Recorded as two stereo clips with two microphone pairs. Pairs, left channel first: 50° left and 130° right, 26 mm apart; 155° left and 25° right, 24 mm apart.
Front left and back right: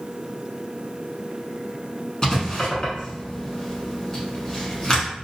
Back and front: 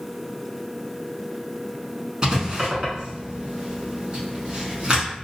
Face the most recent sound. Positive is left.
turn(degrees=5)